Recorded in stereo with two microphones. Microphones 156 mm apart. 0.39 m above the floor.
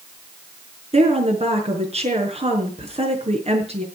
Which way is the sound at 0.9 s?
40° right (ahead or behind).